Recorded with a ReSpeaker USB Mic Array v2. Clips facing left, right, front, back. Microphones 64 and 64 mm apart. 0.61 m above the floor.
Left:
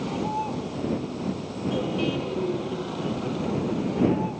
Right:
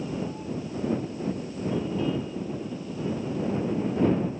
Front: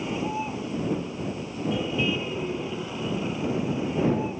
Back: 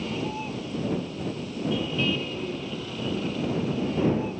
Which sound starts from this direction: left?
A vehicle, at 0.0 s.